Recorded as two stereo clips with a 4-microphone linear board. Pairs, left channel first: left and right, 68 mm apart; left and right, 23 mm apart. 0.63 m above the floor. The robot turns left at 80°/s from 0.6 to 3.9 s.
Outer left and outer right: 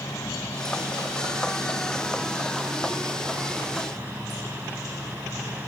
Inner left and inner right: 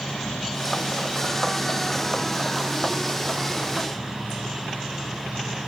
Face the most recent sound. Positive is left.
turn(degrees=-150)